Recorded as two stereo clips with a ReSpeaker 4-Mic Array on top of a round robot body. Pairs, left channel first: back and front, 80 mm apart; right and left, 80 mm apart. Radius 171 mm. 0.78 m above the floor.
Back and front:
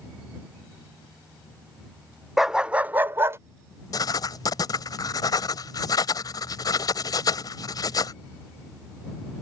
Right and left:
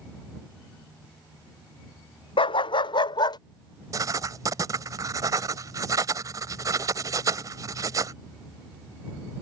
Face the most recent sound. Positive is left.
turn(degrees=140)